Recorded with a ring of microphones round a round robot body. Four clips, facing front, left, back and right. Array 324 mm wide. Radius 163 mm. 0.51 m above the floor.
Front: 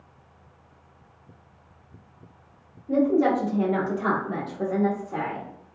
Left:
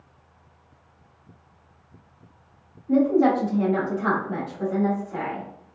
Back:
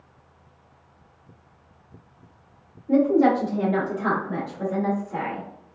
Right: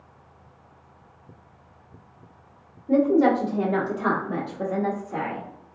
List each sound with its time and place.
2.9 s a woman speaking: 100° right, 1.5 m; by 5.5 s 30° right, 1.8 m